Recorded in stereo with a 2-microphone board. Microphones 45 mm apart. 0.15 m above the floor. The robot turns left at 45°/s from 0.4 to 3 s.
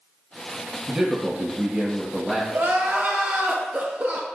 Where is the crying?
50° right (ahead or behind), 0.9 m; by 4.3 s 40° right (ahead or behind), 0.9 m.